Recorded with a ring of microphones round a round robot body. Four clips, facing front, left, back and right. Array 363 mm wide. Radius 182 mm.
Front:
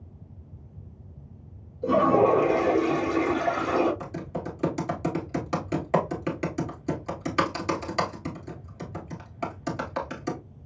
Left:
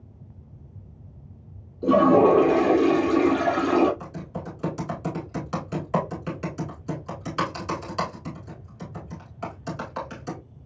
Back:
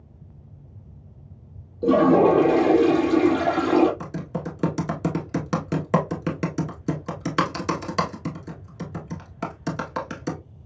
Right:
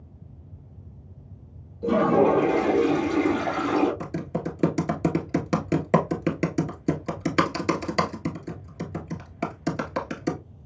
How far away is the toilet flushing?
About 2.5 m.